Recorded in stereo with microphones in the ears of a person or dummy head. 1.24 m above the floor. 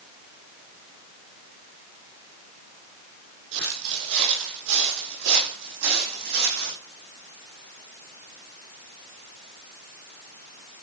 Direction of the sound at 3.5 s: 65° right (ahead or behind).